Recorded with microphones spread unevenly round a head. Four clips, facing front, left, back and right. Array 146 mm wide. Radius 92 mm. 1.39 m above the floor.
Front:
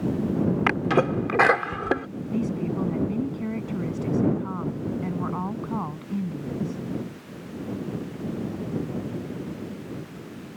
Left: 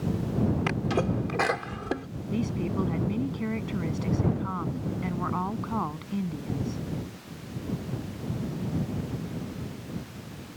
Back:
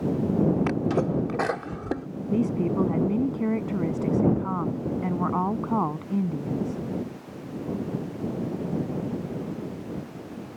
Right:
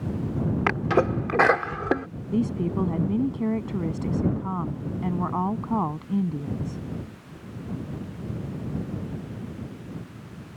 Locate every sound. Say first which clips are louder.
0.7 s a sneeze: right 5 dB, front 2 dB; 30° right
2.3 s a woman speaking: right 4 dB, back 3 dB; 160° right